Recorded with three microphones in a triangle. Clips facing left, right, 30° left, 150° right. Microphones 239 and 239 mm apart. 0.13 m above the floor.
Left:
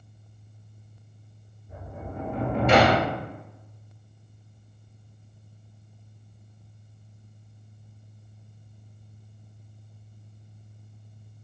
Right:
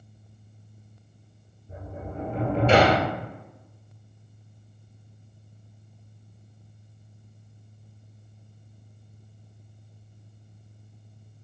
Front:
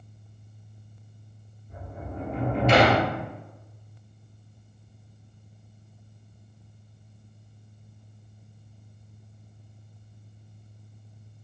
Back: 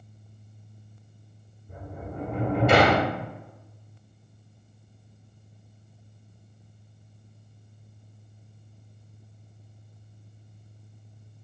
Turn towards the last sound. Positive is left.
turn(degrees=-145)